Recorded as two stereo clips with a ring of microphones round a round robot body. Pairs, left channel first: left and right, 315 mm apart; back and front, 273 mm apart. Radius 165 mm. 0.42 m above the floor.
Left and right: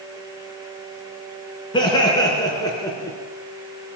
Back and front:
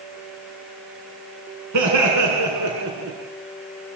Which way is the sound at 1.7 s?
15° left.